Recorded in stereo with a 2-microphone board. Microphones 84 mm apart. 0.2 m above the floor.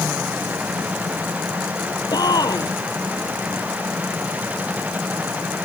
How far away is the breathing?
I don't hear breathing.